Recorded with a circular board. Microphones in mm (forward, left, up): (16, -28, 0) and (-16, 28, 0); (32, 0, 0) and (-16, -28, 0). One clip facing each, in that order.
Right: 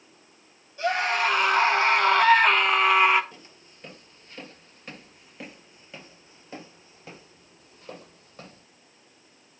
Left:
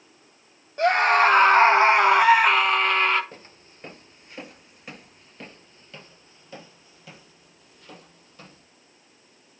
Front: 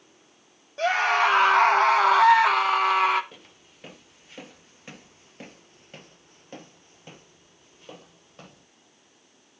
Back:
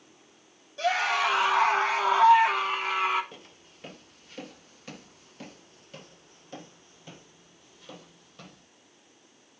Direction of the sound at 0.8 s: 85° left.